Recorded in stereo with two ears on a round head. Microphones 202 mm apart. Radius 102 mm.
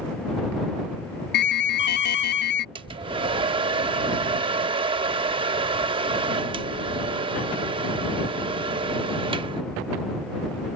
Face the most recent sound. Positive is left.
turn(degrees=-20)  # may be behind; listen again after turning